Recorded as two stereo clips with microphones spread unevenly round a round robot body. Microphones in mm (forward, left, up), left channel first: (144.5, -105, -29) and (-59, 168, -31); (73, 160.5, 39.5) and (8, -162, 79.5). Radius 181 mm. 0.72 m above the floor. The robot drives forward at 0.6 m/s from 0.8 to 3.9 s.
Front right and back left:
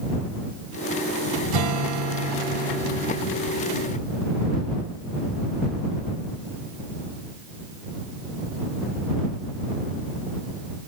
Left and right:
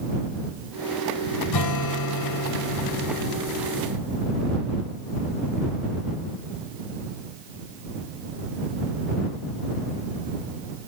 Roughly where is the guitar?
Left.